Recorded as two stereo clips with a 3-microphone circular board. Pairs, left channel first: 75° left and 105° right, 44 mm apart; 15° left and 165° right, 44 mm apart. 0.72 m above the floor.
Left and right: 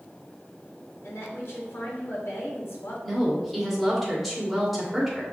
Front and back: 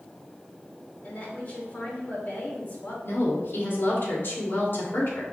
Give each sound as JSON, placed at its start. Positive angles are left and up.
{"t": 1.0, "sound": "a woman speaking", "azimuth_deg": 60, "distance_m": 2.5}
{"t": 3.0, "sound": "a woman speaking", "azimuth_deg": -15, "distance_m": 2.0}